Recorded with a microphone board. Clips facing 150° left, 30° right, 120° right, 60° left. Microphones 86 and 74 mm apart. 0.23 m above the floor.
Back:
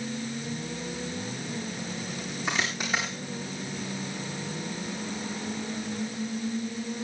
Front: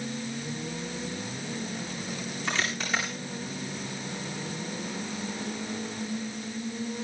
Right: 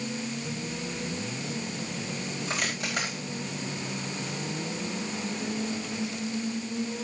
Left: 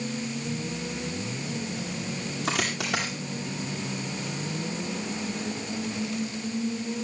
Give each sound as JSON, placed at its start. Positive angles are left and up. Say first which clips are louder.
{"t": 2.5, "sound": "a dropped coin", "louder": "back 1 dB, left 6 dB", "azimuth_deg": 75, "distance_m": 9.5}